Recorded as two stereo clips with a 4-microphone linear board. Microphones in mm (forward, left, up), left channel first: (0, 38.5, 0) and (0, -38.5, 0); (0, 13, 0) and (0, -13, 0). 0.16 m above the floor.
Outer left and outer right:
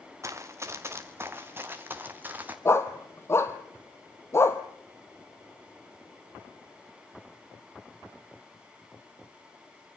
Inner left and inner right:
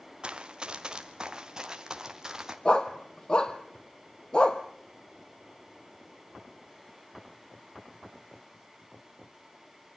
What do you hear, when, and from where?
0.2 s running footsteps: 40° right (ahead or behind), 2 m; by 2.5 s 20° right (ahead or behind), 3 m
2.6 s a dog barking: 35° left (ahead or behind), 1.3 m